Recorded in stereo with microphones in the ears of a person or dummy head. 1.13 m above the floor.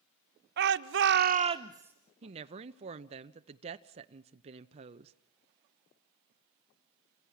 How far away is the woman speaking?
About 0.8 m.